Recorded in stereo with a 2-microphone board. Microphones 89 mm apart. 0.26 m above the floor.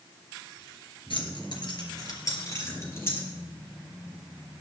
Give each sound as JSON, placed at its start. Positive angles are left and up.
{"t": 1.1, "sound": "keys jangling", "side_deg": 65, "distance_m": 3.0}